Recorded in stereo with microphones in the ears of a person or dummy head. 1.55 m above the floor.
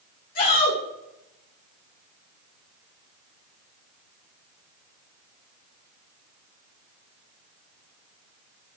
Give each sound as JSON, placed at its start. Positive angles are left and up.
{"t": 0.3, "sound": "a shout", "side_deg": 50, "distance_m": 2.0}